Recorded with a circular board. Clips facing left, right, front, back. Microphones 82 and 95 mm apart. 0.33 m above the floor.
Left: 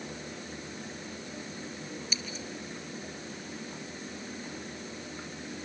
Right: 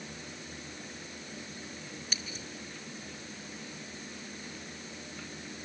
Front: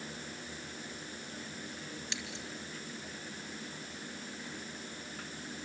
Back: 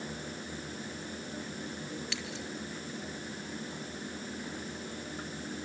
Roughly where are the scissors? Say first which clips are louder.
Left 3 dB, back 4 dB; ahead right.